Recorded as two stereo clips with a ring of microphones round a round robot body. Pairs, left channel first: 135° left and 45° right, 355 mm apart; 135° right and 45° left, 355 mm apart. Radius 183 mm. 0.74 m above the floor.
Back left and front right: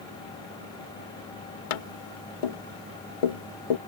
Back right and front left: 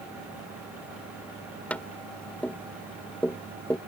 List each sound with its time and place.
1.7 s tapping: 140° left